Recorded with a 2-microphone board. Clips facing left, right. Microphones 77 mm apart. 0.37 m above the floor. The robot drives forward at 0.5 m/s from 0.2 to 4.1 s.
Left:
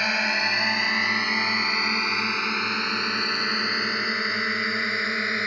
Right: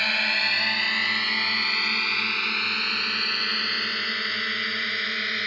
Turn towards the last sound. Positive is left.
turn(degrees=25)  # may be behind; listen again after turning